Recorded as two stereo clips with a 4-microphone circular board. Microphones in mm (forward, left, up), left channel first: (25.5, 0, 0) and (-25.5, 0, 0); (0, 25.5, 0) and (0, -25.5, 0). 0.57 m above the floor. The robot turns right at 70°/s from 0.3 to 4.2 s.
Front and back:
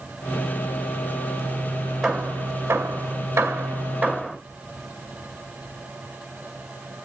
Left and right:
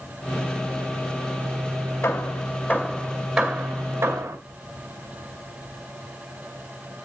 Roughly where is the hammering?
Left.